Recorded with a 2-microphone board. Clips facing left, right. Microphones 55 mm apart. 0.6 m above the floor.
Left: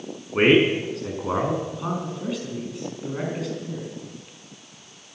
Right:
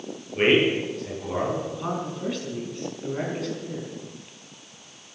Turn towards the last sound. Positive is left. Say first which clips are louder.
# left 1 dB
turn(degrees=5)  # may be behind; listen again after turning